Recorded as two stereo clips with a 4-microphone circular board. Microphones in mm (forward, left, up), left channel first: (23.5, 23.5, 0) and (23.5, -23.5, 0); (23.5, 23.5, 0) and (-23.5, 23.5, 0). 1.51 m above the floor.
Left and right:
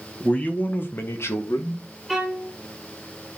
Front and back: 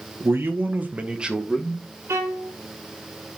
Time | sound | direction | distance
0.2 | a man speaking | 155° left | 1.7 m
2.1 | a violin | 175° left | 2.5 m